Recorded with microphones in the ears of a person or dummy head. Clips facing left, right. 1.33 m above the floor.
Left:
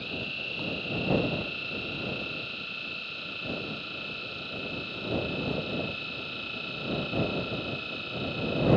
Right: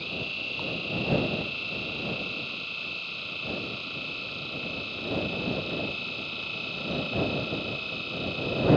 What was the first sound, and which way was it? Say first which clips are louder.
A machine running: even; 15° left (ahead or behind).